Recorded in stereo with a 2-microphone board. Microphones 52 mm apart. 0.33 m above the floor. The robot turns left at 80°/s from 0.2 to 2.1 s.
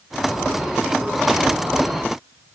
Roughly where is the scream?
I don't hear a scream.